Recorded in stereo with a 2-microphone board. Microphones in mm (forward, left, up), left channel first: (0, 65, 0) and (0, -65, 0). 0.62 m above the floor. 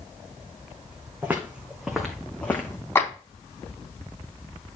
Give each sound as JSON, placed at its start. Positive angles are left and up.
{"t": 1.2, "sound": "footsteps", "side_deg": -15, "distance_m": 2.5}
{"t": 3.0, "sound": "a clap", "side_deg": 20, "distance_m": 3.5}